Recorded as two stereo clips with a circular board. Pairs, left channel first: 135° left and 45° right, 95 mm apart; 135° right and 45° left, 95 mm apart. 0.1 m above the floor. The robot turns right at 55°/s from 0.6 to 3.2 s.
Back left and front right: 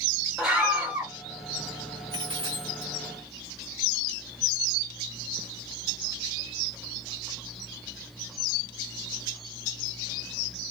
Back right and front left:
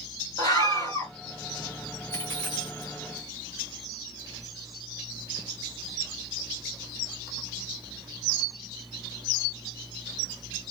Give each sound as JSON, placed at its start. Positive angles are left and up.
{"t": 0.4, "sound": "a scream", "azimuth_deg": -130, "distance_m": 2.0}
{"t": 2.1, "sound": "a dropped coin", "azimuth_deg": -80, "distance_m": 1.1}